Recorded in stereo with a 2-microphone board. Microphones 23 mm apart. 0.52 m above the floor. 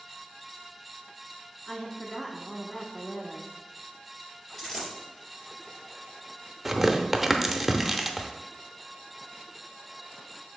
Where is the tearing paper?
5° right (ahead or behind), 0.6 m.